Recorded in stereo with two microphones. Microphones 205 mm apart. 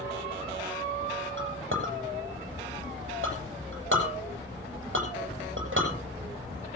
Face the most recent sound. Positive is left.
turn(degrees=-80)